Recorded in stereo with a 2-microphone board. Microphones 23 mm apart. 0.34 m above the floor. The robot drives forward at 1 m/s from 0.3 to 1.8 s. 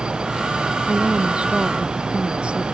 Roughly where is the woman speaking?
Right.